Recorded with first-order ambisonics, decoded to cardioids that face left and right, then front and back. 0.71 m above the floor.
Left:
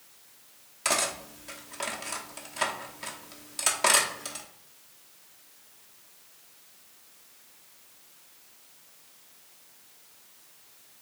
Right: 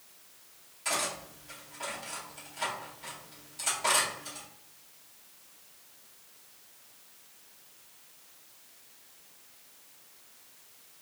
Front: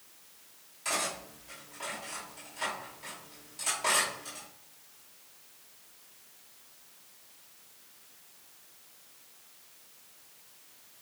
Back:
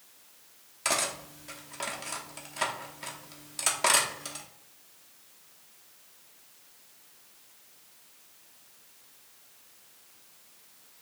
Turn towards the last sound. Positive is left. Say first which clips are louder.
# left 4 dB, back 3 dB
turn(degrees=135)